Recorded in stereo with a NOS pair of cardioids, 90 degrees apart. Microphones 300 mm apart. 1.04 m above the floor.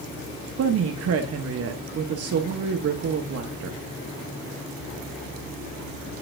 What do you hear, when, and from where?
0.6 s a woman speaking: 55° right, 0.9 m